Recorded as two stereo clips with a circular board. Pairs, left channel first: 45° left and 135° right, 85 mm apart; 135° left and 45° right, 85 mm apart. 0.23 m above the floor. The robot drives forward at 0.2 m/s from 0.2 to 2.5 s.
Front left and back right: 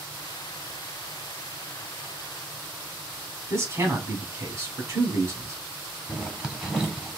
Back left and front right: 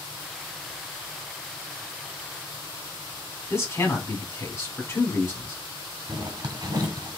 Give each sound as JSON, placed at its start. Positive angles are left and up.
{"t": 3.5, "sound": "a man speaking", "azimuth_deg": -175, "distance_m": 1.6}
{"t": 6.1, "sound": "a zipper", "azimuth_deg": -50, "distance_m": 1.4}